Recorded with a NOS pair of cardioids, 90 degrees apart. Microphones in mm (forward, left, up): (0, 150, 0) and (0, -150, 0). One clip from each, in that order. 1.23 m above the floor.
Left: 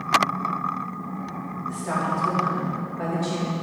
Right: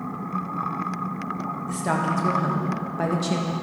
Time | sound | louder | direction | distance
1.7 | a woman speaking | right 1 dB | 50° right | 1.6 m